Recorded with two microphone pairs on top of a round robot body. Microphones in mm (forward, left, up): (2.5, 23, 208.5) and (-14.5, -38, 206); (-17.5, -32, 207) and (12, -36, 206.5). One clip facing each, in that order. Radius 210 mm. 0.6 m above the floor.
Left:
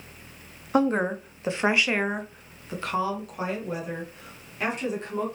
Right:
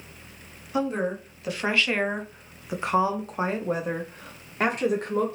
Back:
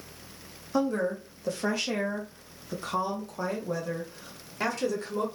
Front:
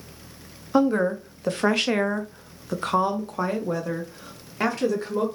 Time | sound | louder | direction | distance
0.7 | a woman speaking | left 4 dB, front 7 dB | 40° left | 1.1 m